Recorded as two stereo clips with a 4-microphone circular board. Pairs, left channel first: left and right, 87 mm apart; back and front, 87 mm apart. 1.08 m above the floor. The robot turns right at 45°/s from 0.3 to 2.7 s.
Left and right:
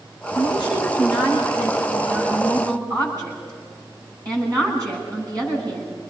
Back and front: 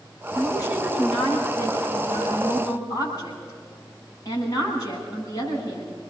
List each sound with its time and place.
0.3 s a woman speaking: 120° left, 10 m; by 6.1 s 135° right, 10 m